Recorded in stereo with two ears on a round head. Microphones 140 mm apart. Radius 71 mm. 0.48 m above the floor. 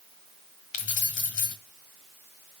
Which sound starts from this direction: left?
Keys jangling, at 0.7 s.